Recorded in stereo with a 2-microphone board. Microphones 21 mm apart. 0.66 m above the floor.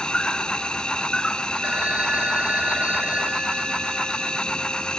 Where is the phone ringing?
75° right (ahead or behind).